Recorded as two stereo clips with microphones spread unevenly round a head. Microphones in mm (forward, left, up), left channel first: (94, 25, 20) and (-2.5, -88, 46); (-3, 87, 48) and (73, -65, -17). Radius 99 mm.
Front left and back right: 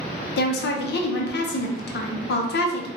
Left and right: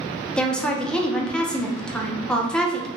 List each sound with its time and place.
0.4 s a woman speaking: 40° left, 0.6 m